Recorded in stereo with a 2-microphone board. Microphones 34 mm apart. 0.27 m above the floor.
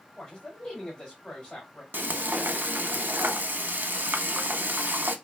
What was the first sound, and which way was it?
A man speaking, 20° left (ahead or behind).